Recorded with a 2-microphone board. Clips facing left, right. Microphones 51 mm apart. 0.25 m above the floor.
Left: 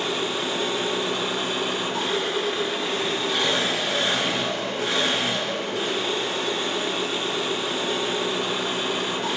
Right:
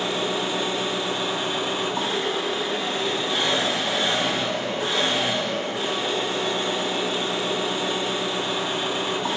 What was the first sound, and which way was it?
An engine running, 75° left (ahead or behind).